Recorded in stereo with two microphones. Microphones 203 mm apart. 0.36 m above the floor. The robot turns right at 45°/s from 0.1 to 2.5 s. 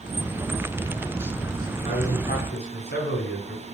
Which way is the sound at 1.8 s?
30° left (ahead or behind).